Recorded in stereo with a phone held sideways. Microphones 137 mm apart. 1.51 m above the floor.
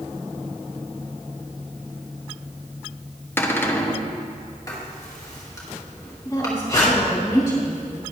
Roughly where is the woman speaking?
Left.